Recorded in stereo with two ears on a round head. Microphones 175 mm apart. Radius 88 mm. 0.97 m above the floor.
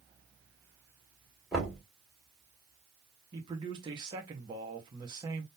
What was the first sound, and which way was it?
Knocking, centre (ahead or behind).